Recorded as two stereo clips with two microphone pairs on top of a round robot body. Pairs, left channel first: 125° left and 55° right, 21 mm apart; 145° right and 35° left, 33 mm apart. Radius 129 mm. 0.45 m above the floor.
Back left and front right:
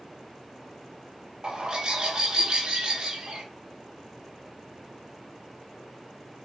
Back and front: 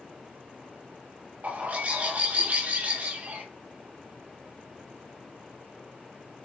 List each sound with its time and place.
1.4 s a bird: 5° right, 3 m